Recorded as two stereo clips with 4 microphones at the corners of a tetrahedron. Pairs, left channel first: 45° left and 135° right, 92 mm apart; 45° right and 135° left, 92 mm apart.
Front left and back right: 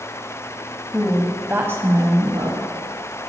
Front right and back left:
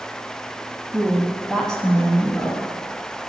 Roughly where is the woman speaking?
Behind left.